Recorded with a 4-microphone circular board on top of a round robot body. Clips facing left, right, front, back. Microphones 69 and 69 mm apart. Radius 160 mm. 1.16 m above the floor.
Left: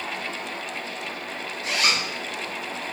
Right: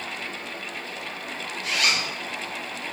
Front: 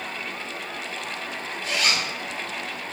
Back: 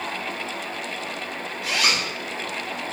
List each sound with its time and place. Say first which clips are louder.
1.6 s a zipper: left 1 dB, back 1 dB; 155° left, 0.7 m